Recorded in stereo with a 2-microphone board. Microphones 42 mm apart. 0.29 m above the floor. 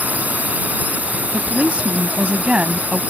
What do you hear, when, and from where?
0.0 s a drone: 40° right (ahead or behind)
1.3 s a woman speaking: 30° right (ahead or behind)